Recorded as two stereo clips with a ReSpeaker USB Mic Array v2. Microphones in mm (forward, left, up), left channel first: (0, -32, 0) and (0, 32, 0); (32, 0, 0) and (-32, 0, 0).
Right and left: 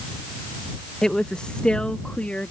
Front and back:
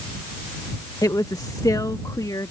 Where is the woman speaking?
10° right; by 2.5 s 20° right.